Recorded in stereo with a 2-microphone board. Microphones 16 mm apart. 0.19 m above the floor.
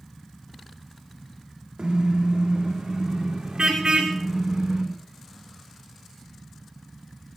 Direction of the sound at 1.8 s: 75° right (ahead or behind).